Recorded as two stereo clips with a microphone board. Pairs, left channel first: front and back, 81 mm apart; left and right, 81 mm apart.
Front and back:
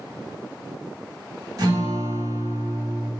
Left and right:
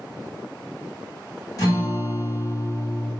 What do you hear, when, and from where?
1.6 s a guitar: 135° left, 2 m